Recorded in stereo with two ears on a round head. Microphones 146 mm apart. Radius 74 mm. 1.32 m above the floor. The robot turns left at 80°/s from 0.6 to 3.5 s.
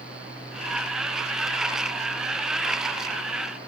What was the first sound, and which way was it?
Only background noise.